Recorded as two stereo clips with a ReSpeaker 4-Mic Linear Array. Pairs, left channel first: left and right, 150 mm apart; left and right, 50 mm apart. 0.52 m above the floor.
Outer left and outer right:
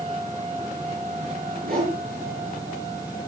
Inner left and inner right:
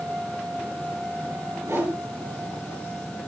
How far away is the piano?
No piano in this recording.